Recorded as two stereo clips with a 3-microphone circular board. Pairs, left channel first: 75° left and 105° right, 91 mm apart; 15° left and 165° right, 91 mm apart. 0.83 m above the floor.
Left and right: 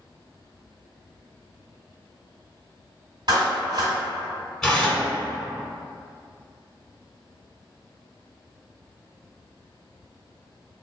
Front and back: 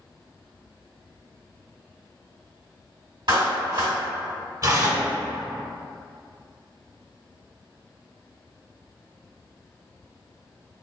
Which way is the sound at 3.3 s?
135° right.